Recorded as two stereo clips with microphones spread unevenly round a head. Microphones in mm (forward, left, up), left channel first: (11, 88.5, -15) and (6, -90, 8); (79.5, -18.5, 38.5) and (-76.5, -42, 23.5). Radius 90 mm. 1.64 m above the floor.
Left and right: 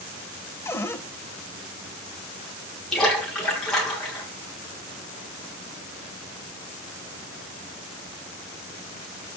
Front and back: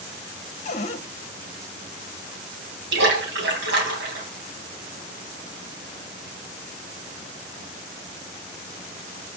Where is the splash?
175° left, 4 m.